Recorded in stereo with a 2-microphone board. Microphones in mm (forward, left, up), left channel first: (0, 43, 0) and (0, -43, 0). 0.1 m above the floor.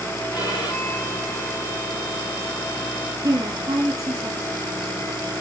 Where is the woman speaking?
35° right (ahead or behind), 2.5 m.